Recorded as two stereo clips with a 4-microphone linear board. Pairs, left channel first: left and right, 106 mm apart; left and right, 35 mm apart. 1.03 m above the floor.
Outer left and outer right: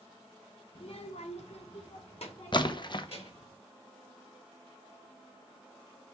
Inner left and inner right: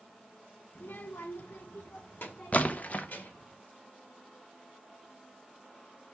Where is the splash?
45° left (ahead or behind), 0.7 m.